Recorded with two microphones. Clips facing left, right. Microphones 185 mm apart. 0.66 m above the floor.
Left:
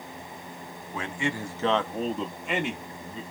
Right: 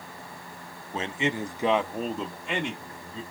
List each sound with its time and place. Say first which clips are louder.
0.9 s a man speaking: right 2 dB; 25° right (ahead or behind), 0.6 m; by 3.2 s 10° left (ahead or behind), 1.1 m